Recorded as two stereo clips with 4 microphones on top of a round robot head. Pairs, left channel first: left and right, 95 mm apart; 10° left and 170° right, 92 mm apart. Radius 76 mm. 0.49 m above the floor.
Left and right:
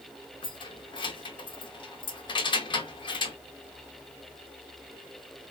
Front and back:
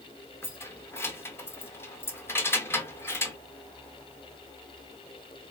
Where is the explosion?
I don't hear an explosion.